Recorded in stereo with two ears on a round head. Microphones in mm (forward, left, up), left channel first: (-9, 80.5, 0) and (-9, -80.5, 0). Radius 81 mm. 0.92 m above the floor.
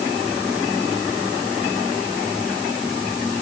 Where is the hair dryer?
No hair dryer in this recording.